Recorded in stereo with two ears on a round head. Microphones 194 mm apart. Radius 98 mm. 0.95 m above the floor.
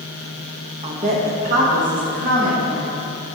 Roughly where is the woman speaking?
Right.